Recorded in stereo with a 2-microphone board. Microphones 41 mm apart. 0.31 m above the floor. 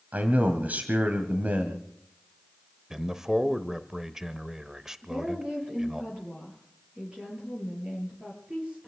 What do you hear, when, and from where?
0.1 s a man speaking: 45° right (ahead or behind), 2 m
2.9 s a man speaking: 10° right (ahead or behind), 0.9 m
5.0 s a woman speaking: 30° right (ahead or behind), 7.5 m